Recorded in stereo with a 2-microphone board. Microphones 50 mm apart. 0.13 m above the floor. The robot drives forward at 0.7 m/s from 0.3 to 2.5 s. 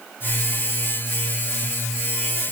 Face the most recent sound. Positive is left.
No sound to turn to.